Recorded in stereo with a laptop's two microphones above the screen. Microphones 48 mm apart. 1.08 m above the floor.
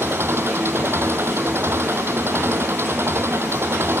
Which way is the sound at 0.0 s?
55° right (ahead or behind).